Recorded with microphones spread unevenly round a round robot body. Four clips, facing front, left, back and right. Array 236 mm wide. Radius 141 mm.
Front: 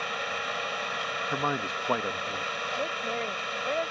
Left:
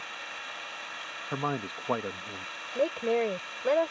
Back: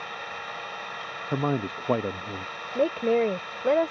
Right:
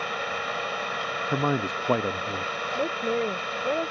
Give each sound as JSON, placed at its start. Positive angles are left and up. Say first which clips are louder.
{"t": 0.0, "sound": "an engine running", "louder": "right 12 dB, front 4 dB", "azimuth_deg": -80}
{"t": 1.3, "sound": "a man speaking", "louder": "right 5 dB, back 5 dB", "azimuth_deg": -135}
{"t": 2.8, "sound": "a woman speaking", "louder": "left 1 dB, back 13 dB", "azimuth_deg": -170}